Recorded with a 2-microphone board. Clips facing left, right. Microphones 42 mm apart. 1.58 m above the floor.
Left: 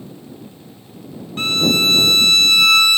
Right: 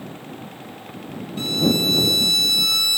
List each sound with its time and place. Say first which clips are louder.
1.4 s a violin: left 3 dB; 55° left (ahead or behind)